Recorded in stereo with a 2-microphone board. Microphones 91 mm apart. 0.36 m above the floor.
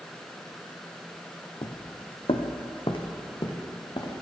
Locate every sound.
1.6 s footsteps: 60° left (ahead or behind), 0.9 m; by 4.1 s 50° left (ahead or behind), 2.5 m